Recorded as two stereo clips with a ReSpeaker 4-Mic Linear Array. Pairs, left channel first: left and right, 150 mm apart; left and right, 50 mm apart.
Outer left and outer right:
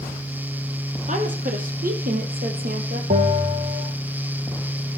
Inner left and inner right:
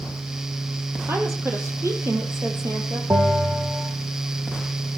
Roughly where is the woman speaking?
Right.